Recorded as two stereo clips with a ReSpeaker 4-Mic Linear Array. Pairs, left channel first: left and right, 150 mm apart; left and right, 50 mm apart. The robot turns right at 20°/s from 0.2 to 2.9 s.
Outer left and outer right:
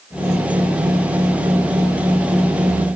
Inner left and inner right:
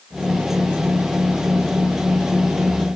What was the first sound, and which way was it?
Only background noise.